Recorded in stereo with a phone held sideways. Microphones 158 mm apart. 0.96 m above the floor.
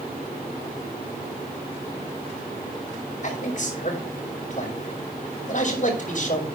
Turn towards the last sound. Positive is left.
turn(degrees=55)  # may be behind; listen again after turning